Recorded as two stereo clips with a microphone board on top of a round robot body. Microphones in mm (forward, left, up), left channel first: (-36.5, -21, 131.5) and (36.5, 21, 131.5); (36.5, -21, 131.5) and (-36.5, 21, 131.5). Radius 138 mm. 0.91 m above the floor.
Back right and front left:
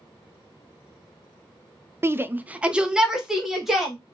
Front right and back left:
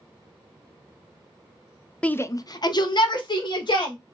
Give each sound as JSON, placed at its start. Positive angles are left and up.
{"t": 2.0, "sound": "a shout", "azimuth_deg": 35, "distance_m": 0.5}